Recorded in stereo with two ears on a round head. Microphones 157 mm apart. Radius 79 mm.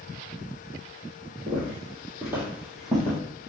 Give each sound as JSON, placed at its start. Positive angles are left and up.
{"t": 1.5, "sound": "footsteps", "side_deg": -20, "distance_m": 1.8}